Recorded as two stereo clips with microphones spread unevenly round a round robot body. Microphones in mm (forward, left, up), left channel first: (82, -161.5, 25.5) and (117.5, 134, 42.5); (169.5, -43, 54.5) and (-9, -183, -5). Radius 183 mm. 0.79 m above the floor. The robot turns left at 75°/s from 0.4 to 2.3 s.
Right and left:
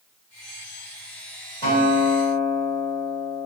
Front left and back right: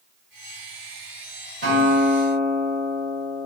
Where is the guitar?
170° right, 1.1 m; by 3.5 s 140° left, 1.1 m.